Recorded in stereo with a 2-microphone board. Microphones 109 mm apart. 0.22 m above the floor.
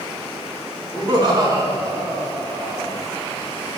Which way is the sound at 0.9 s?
40° right (ahead or behind).